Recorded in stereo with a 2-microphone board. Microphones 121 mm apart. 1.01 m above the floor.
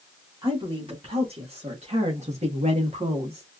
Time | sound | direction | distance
0.4 | a woman speaking | 45° right (ahead or behind) | 2 m